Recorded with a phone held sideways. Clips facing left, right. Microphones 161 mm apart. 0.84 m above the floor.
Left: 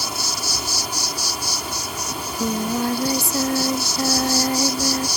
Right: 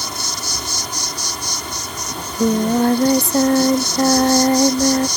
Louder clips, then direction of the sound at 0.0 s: Even; 10° left (ahead or behind).